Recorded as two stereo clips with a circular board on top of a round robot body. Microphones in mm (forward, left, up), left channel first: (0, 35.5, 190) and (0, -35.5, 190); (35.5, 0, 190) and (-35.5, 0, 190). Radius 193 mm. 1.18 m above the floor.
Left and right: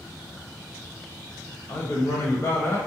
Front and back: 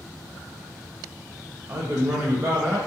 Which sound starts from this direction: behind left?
A man speaking, at 1.7 s.